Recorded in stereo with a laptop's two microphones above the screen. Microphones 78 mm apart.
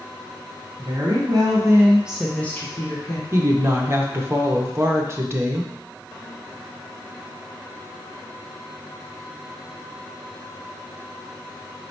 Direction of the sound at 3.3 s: 30° right (ahead or behind).